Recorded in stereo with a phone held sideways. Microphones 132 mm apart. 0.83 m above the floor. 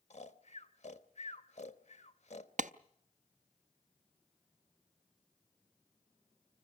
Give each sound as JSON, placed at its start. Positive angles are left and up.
{"t": 0.1, "sound": "snoring", "side_deg": 60, "distance_m": 1.0}
{"t": 2.6, "sound": "a clap", "side_deg": -70, "distance_m": 0.5}